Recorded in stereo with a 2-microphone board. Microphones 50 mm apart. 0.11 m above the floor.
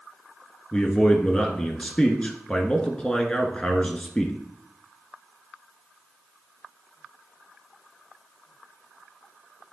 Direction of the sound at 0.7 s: 20° left (ahead or behind).